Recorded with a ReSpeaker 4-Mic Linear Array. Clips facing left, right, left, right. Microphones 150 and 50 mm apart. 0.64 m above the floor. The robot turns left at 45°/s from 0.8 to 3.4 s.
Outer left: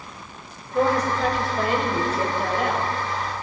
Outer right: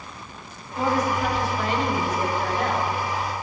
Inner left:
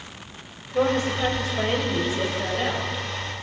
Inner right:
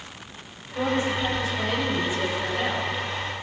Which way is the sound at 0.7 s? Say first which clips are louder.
Outer left 2 dB, inner left 3 dB; 90° left.